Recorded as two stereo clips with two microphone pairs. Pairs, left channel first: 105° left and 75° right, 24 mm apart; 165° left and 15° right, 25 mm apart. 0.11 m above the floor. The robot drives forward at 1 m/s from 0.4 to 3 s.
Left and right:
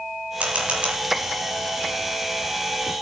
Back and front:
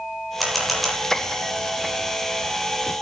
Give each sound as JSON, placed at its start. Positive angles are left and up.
{"t": 0.4, "sound": "a camera shutter", "azimuth_deg": -105, "distance_m": 5.5}